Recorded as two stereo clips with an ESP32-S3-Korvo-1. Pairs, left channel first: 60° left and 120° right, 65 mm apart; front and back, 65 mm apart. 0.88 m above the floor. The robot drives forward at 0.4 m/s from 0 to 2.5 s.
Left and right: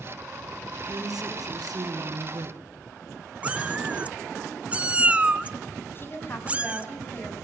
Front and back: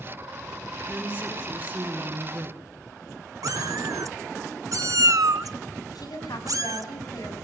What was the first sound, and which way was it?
A woman speaking, 110° right.